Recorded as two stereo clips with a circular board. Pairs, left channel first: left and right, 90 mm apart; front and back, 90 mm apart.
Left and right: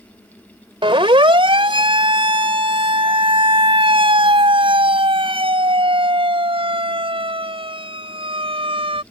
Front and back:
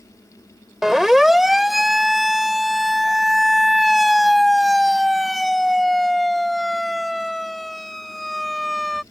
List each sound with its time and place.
0.8 s a siren: 95° right; by 9.0 s 90° right